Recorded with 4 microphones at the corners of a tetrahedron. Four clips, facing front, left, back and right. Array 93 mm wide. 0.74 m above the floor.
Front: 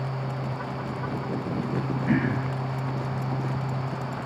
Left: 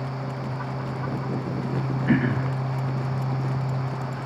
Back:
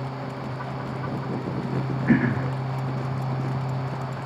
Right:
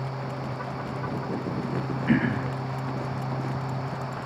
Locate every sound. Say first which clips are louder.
2.1 s throat clearing: left 1 dB, back 5 dB; 165° left, 0.7 m